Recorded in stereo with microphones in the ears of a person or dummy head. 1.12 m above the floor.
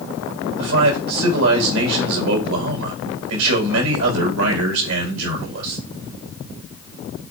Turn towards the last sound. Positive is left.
turn(degrees=-80)